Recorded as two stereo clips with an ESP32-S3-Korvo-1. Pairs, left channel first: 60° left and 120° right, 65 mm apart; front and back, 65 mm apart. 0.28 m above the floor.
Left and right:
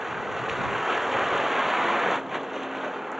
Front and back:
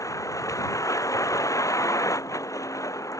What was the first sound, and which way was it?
A vehicle, 35° right.